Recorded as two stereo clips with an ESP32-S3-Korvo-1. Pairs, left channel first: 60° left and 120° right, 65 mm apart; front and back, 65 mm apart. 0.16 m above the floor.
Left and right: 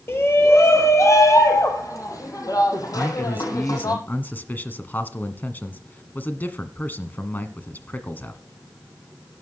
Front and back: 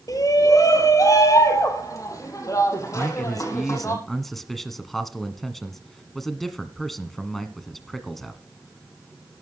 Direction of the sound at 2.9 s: 85° left.